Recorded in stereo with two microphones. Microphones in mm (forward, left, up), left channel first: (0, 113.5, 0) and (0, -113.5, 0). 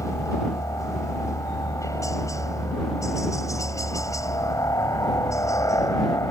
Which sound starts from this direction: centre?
A helicopter, at 0.0 s.